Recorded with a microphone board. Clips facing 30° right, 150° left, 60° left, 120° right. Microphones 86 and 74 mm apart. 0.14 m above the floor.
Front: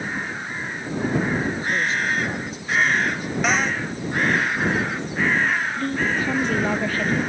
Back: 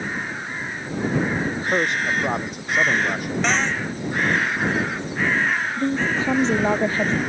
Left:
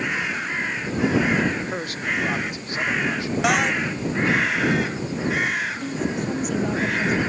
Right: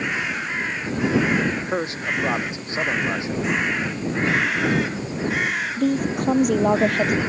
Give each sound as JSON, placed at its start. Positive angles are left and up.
{"t": 1.4, "sound": "a man speaking", "azimuth_deg": 175}
{"t": 3.4, "sound": "a cupboard door", "azimuth_deg": 55}
{"t": 5.8, "sound": "a woman speaking", "azimuth_deg": -145}